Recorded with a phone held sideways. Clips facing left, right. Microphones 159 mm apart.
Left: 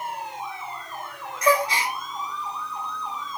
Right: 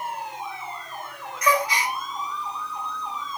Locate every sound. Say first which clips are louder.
1.4 s a gasp: left 2 dB; 30° left (ahead or behind), 1.0 m